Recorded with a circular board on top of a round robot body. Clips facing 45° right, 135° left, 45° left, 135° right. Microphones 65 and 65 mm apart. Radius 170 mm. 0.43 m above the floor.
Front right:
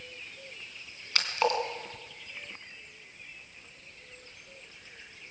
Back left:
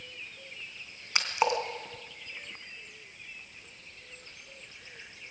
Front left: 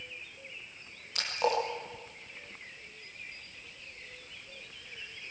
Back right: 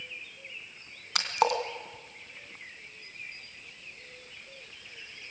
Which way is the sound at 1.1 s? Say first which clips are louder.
Even, back right 3 dB; 150° right.